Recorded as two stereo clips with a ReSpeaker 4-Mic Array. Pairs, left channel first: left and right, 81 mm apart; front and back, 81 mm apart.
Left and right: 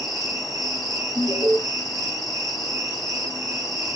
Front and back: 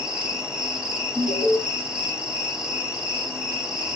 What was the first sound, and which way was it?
An insect, 105° right.